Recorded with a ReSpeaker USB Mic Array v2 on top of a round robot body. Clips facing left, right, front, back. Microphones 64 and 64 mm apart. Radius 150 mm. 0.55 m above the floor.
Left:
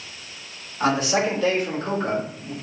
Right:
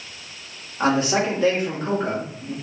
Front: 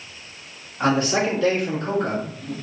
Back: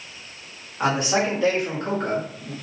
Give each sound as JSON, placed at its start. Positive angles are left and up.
{"t": 0.8, "sound": "a man speaking", "azimuth_deg": -105, "distance_m": 1.5}